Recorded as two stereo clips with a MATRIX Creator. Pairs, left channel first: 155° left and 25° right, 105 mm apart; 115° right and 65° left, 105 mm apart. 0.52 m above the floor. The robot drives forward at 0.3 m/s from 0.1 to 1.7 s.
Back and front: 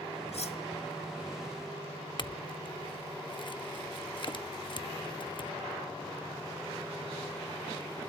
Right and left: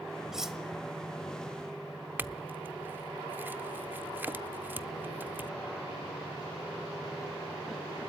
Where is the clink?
135° left, 0.8 m.